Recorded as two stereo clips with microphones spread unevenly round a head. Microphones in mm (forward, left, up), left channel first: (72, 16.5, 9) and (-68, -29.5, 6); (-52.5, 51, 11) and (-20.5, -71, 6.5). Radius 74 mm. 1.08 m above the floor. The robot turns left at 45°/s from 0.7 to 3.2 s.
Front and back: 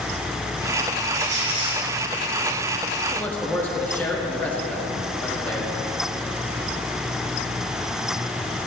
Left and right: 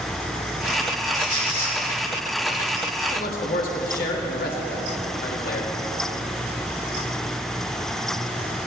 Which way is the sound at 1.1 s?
160° left.